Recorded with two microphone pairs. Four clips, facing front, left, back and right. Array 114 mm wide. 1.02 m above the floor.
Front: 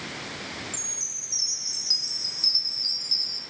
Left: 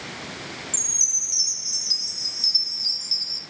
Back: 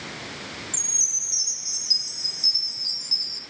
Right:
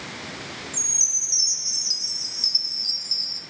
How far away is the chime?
About 1.8 m.